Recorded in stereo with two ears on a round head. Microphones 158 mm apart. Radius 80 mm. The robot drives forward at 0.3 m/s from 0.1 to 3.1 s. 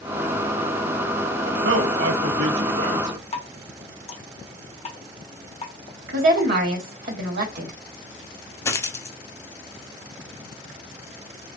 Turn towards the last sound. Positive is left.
turn(degrees=15)  # may be behind; listen again after turning